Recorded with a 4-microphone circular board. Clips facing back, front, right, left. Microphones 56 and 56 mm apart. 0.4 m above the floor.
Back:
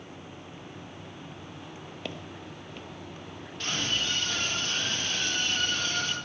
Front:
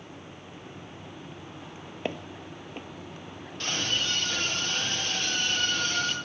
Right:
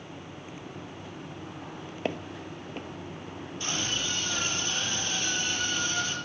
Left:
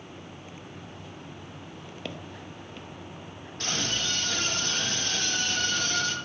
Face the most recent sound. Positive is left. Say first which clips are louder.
# front 1 dB, left 2 dB
turn(degrees=95)